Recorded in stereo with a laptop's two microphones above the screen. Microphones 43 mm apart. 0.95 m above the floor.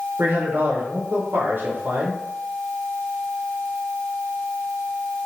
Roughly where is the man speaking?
Right.